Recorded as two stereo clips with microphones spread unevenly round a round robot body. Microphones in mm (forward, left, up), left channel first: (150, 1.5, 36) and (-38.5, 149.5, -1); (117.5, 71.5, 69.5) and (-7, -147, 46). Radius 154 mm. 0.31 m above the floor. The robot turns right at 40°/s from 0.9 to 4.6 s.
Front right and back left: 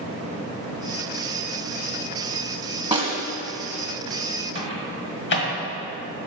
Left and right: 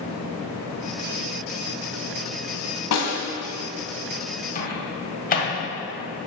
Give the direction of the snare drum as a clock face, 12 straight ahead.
10 o'clock.